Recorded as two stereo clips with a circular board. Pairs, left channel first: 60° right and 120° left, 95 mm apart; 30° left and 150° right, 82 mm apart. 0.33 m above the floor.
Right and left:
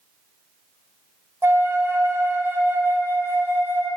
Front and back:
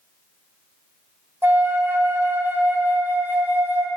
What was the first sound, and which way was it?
A flute, 165° left.